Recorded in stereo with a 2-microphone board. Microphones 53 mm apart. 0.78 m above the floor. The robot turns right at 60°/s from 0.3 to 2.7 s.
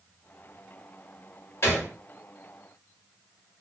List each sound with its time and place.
1.6 s a gunshot: 50° left (ahead or behind), 1.1 m; by 1.9 s 45° left (ahead or behind), 1.1 m